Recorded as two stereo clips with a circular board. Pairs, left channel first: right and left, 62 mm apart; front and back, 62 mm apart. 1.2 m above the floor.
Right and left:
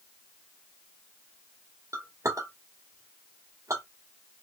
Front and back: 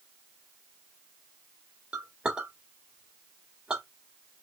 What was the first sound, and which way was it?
A clink, 110° left.